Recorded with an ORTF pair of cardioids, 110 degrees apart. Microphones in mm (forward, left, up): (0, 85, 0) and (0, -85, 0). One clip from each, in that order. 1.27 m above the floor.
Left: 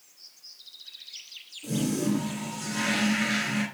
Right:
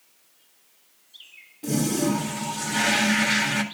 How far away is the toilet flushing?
About 3 m.